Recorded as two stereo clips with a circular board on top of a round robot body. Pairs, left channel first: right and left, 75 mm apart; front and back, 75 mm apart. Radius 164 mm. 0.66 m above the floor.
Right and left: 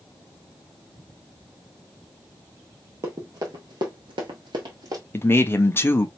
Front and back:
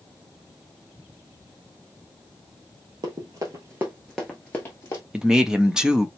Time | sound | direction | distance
3.0 | running footsteps | 145° left | 1.3 m
5.1 | a man speaking | 105° right | 1.1 m